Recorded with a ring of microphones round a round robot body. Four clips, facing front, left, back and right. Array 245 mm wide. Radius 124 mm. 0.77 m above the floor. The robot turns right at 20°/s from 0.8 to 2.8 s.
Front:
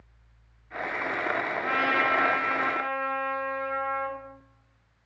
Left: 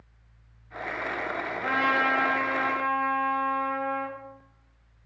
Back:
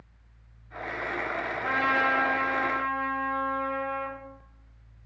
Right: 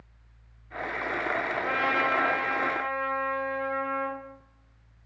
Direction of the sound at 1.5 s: 130° left.